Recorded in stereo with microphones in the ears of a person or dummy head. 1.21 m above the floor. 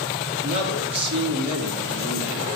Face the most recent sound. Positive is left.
turn(degrees=-30)  # may be behind; listen again after turning